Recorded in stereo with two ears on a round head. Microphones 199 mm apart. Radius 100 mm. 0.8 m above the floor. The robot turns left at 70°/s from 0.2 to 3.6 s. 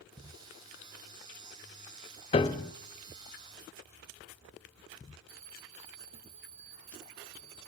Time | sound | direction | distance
2.3 | a piano | 25° left (ahead or behind) | 0.7 m
5.3 | a bell | 25° right (ahead or behind) | 3 m